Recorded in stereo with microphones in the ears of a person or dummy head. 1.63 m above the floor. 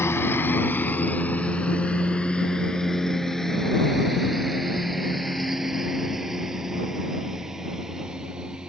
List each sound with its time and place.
0.0 s a lawn mower: 20° left (ahead or behind); by 8.7 s centre (ahead or behind)